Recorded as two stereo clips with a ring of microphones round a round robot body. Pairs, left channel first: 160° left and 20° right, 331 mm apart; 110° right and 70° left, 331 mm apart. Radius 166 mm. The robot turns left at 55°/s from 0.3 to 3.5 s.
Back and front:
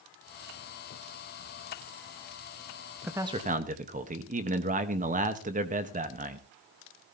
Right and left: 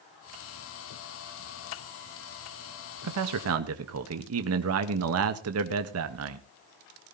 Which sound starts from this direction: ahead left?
A man speaking, at 3.0 s.